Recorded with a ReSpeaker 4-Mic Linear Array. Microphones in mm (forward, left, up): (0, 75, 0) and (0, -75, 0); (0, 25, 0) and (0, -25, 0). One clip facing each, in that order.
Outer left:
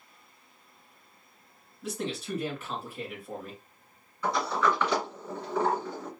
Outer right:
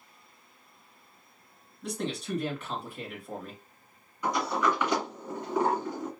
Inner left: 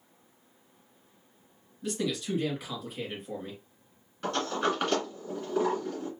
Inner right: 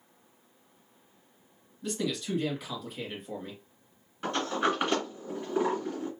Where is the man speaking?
5° left (ahead or behind), 2 m.